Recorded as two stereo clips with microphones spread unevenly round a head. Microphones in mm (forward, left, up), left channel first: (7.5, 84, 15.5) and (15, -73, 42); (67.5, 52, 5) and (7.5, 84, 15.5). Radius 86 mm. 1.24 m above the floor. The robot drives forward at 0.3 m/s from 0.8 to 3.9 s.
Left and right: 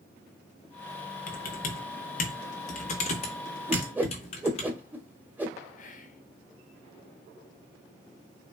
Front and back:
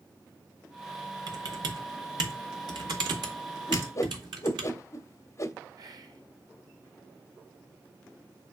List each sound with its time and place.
1.3 s typing on a keyboard: 130° left, 1.6 m; by 4.7 s 145° left, 2 m
3.7 s a whoosh: 35° right, 0.9 m; by 5.5 s 40° right, 0.9 m
5.8 s whispering: 125° left, 1.2 m